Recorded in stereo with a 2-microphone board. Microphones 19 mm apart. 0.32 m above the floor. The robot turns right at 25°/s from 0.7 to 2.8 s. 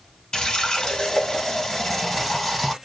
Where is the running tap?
135° left, 1.3 m; by 2.8 s 175° right, 1.3 m.